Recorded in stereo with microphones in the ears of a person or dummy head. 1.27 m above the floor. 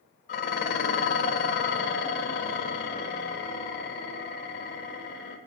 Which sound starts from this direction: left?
Dishes clattering, at 0.3 s.